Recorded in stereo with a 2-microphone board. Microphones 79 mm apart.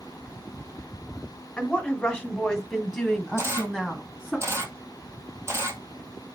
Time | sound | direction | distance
1.6 | a woman speaking | 10° left (ahead or behind) | 1.4 m
3.4 | a camera shutter | 35° right (ahead or behind) | 2 m